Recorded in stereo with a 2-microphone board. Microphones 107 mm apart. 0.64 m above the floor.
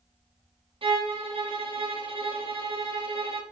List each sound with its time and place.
0.8 s a violin: 60° right (ahead or behind), 0.6 m